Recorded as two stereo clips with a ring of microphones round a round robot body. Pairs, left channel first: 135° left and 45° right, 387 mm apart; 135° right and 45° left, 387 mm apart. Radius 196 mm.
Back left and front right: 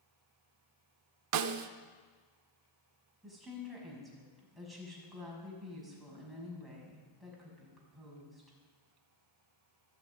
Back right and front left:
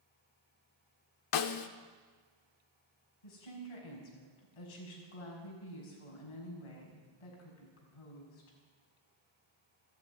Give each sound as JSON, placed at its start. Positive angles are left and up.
{"t": 1.3, "sound": "a snare drum", "azimuth_deg": -95, "distance_m": 0.8}
{"t": 3.2, "sound": "a woman speaking", "azimuth_deg": -135, "distance_m": 5.5}